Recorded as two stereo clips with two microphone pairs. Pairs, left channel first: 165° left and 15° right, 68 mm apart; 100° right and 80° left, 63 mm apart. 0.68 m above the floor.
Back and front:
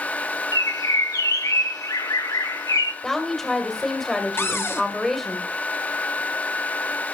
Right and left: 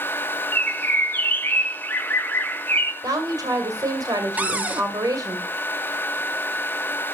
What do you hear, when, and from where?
0.5 s a bird: 155° right, 0.8 m
3.0 s a woman speaking: 80° left, 2.5 m
4.4 s a cupboard door: 130° left, 0.8 m